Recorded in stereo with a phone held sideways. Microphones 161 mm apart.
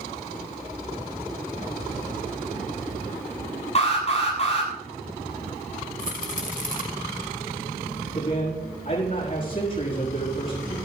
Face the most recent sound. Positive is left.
turn(degrees=60)  # may be behind; listen again after turning